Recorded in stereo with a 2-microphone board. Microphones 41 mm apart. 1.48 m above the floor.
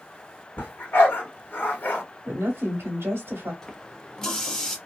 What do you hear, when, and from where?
0.6 s a dog barking: 50° left (ahead or behind), 1.6 m
2.2 s a woman speaking: 80° right, 1.0 m
3.6 s a running tap: 10° left (ahead or behind), 0.7 m